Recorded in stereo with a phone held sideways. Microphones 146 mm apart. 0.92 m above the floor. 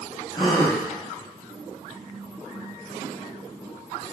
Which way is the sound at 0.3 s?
35° left (ahead or behind).